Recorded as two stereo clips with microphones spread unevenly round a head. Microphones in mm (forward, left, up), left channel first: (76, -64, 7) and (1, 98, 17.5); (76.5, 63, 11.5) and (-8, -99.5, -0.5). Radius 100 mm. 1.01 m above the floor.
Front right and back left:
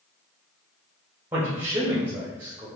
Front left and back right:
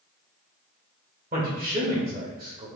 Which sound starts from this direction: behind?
A man speaking, at 1.3 s.